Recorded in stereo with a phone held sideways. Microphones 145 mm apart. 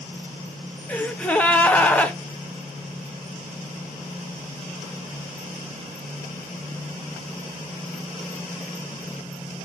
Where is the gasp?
10° left (ahead or behind), 0.5 m.